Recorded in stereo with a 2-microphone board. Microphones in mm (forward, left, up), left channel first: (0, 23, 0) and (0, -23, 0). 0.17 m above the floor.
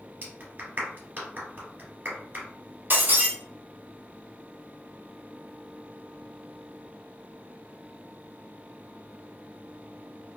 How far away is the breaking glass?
About 1.0 m.